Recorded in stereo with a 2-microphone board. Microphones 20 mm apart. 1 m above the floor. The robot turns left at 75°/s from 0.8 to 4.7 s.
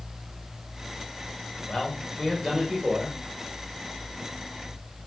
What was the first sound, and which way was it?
A man speaking, 50° left.